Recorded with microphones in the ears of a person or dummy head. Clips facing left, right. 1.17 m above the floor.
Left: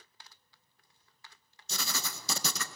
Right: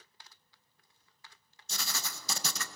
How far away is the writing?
About 1.2 m.